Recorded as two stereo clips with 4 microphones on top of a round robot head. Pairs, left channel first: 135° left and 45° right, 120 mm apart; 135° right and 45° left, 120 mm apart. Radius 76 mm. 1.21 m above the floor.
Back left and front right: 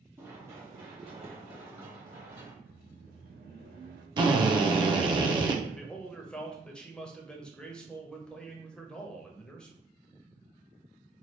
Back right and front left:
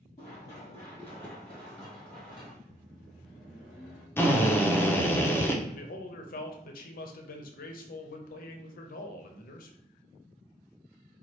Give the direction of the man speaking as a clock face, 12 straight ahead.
5 o'clock.